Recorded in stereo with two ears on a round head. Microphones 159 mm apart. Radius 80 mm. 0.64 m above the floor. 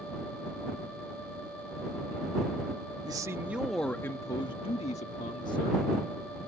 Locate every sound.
3.0 s a man speaking: 25° right (ahead or behind); by 5.8 s 50° left (ahead or behind)